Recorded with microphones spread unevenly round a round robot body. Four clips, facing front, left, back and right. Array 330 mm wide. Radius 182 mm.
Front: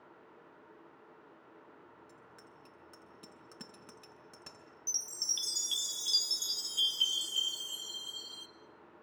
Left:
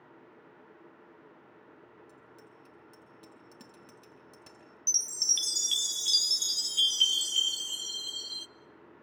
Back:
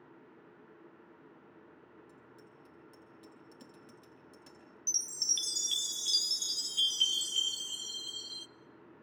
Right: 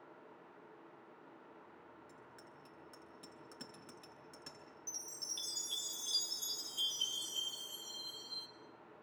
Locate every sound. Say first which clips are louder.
2.1 s a bicycle bell: left 3 dB, even; 25° left, 6.5 m
4.9 s a chime: left 7 dB, back 4 dB; 125° left, 0.6 m